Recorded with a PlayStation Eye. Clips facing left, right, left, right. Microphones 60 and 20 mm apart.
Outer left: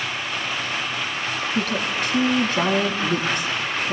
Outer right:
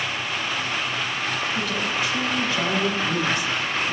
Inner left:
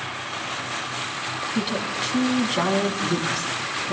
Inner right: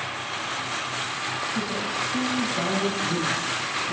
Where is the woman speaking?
60° left (ahead or behind), 3 m.